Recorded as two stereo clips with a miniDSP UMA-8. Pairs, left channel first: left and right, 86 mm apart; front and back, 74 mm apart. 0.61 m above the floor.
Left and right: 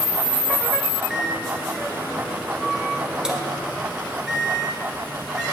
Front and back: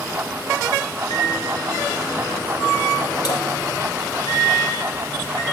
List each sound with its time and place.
1.1 s a microwave: 10° right, 1.6 m